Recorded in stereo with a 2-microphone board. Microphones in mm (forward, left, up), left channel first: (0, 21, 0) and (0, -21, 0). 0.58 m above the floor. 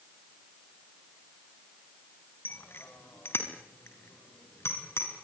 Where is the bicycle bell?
60° left (ahead or behind), 3 m; by 5.1 s 80° left, 5.5 m.